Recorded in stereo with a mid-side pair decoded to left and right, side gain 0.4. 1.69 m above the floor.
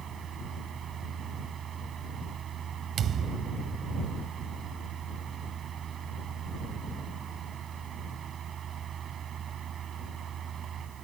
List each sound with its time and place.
0.0 s a fan: 60° right
3.0 s a thud: 65° right